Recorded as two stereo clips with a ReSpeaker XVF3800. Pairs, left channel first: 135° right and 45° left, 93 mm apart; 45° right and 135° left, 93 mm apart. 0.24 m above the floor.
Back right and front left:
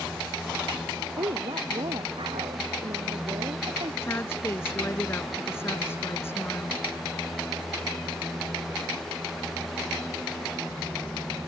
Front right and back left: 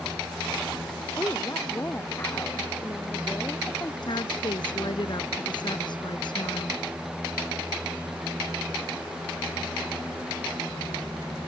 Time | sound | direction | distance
1.2 | a woman speaking | 20° left | ?
4.0 | a woman speaking | 75° right | ?